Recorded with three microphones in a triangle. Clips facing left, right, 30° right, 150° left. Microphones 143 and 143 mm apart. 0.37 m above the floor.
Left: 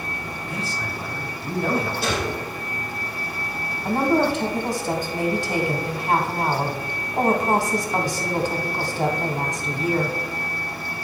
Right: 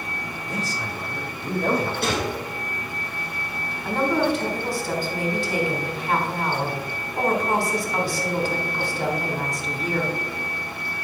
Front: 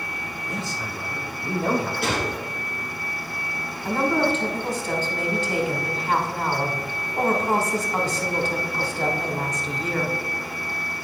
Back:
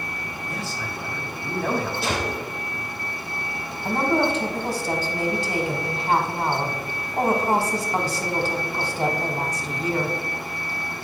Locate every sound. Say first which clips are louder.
0.5 s a man speaking: right 1 dB, front 1 dB; 90° right, 1.5 m
2.0 s a gunshot: even, even; 60° right, 3 m
3.9 s a woman speaking: left 2 dB, even; 95° left, 1.2 m